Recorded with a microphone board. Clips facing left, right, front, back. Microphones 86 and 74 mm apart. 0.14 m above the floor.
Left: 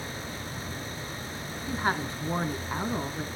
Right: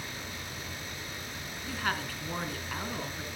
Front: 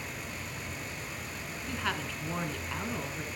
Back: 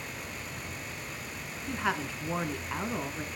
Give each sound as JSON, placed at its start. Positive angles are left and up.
{"t": 1.7, "sound": "a woman speaking", "azimuth_deg": 125, "distance_m": 1.3}